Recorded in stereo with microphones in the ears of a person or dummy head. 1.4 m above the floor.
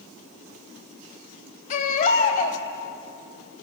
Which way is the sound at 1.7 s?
45° left (ahead or behind).